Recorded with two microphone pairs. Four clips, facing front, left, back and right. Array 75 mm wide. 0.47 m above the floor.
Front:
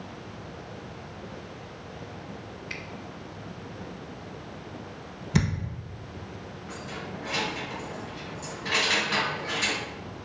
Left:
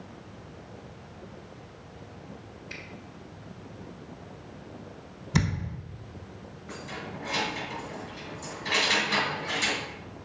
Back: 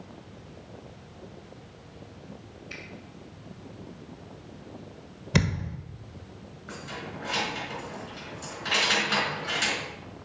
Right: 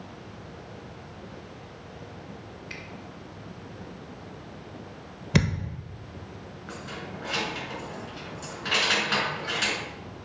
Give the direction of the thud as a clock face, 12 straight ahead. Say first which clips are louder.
Right 3 dB, back 1 dB; 4 o'clock.